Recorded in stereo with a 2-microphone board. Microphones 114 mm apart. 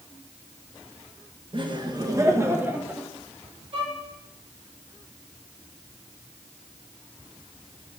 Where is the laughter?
40° right (ahead or behind), 1.9 m; by 3.1 s 10° right (ahead or behind), 2 m.